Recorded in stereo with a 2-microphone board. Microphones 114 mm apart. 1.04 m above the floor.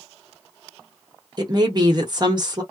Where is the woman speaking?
40° right (ahead or behind), 1.1 m.